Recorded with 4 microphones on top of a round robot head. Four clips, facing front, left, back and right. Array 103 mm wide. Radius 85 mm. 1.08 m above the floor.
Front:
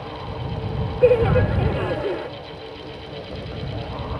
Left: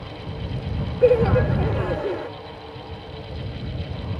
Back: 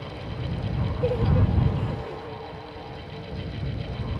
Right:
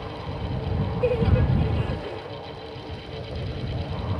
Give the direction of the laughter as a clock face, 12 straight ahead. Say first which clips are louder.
Left 8 dB, front 10 dB; 11 o'clock.